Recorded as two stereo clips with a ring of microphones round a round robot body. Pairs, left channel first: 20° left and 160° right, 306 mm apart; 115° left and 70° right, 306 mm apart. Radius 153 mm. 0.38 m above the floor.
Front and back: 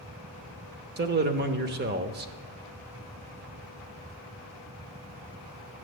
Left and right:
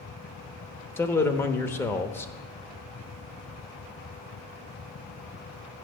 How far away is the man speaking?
About 0.8 m.